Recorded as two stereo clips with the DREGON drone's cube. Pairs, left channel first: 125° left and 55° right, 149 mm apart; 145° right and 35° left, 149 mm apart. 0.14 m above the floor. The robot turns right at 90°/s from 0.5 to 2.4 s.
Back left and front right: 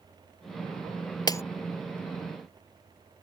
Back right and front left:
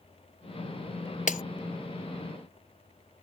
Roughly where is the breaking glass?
Behind.